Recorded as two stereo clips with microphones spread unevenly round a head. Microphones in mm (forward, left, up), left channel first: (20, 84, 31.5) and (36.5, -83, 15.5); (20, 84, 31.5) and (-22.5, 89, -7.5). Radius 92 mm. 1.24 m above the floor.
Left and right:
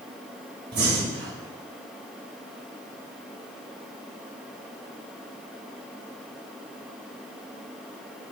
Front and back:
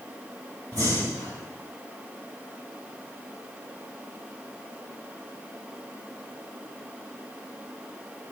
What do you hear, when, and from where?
0.7 s breathing: 125° right, 3 m